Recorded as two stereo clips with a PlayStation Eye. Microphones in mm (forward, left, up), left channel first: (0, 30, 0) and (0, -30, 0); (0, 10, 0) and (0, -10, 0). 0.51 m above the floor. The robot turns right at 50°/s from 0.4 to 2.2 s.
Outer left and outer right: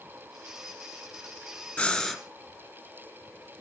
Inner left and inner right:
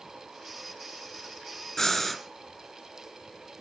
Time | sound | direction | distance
1.8 | breathing | 20° left (ahead or behind) | 2 m